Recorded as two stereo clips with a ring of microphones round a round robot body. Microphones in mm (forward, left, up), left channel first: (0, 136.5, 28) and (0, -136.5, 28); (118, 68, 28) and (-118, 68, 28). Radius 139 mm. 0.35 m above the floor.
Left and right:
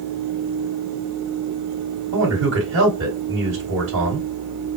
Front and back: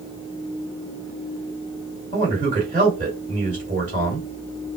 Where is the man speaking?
125° right, 2 m.